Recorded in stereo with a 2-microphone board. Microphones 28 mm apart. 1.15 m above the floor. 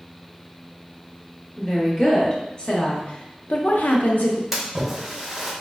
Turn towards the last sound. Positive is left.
turn(degrees=-10)  # may be behind; listen again after turning